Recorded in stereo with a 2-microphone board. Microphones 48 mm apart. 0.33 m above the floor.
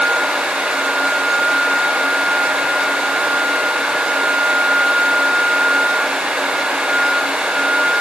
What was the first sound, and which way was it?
Only background noise.